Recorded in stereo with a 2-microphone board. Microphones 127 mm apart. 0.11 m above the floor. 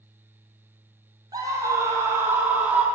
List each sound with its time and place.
1.3 s a scream: 30° right (ahead or behind), 3 m; by 2.9 s 10° right (ahead or behind), 3 m